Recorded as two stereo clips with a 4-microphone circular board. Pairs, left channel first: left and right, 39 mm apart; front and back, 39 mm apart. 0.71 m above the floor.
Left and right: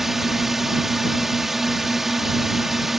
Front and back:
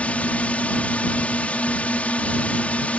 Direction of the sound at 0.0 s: 15° right.